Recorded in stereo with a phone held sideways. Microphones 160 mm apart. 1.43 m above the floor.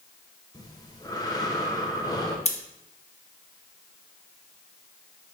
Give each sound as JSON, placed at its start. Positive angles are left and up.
{"t": 0.5, "sound": "breathing", "side_deg": 25, "distance_m": 1.2}
{"t": 2.5, "sound": "scissors", "side_deg": 45, "distance_m": 1.0}